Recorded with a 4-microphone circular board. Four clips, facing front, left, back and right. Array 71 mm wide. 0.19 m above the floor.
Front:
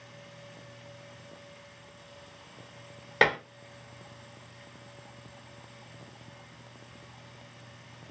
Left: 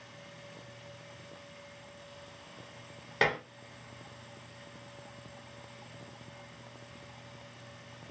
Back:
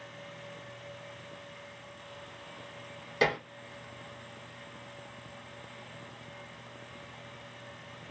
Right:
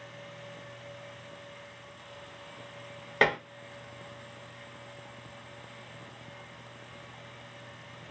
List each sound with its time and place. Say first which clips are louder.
3.2 s dishes clattering: right 4 dB, front 4 dB; 25° right, 1.0 m